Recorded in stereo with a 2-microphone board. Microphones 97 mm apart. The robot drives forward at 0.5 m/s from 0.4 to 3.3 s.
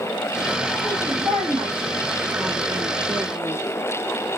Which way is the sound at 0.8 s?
50° right (ahead or behind).